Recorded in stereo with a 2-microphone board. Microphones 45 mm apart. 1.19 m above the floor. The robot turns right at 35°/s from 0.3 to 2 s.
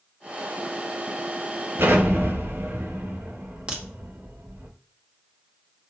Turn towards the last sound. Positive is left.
turn(degrees=-20)  # may be behind; listen again after turning